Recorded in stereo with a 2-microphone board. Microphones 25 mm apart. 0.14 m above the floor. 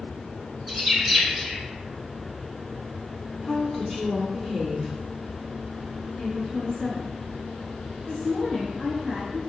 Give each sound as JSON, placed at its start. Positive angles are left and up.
{"t": 0.7, "sound": "a bird", "side_deg": 0, "distance_m": 1.3}
{"t": 3.4, "sound": "a woman speaking", "side_deg": 15, "distance_m": 1.1}
{"t": 6.2, "sound": "a woman speaking", "side_deg": 25, "distance_m": 1.8}